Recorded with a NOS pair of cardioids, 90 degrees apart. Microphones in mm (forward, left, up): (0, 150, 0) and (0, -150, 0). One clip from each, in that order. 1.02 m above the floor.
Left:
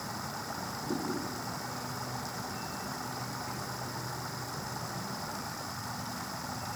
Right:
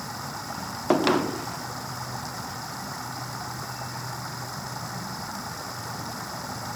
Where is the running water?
30° right.